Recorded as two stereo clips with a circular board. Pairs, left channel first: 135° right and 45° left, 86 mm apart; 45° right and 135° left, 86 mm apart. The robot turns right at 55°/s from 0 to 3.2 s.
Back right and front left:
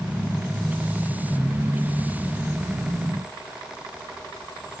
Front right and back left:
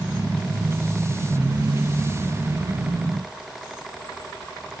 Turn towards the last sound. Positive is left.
No sound to turn to.